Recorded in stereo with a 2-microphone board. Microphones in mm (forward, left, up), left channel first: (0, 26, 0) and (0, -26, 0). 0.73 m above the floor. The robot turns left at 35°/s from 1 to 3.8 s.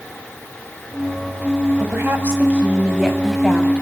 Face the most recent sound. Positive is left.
turn(degrees=160)